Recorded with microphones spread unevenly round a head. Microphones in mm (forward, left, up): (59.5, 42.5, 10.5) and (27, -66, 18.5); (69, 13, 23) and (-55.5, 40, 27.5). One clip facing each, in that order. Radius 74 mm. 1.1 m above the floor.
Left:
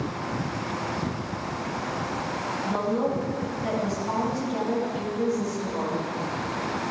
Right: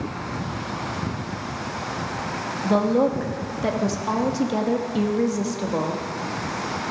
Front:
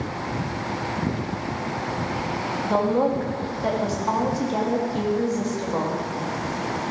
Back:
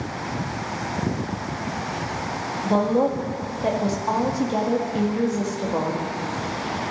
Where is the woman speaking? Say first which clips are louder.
Right 7 dB, back 1 dB; 115° right, 1.4 m.